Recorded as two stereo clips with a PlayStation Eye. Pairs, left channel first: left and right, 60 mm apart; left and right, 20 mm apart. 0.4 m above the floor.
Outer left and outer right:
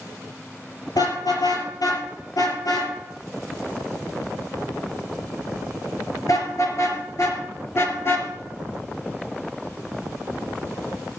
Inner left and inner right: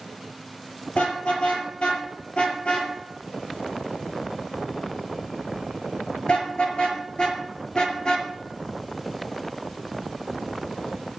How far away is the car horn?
About 5 m.